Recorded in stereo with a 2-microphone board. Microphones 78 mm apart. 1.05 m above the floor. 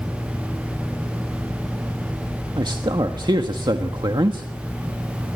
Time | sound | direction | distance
2.6 | a man speaking | 75° right (ahead or behind) | 1.4 m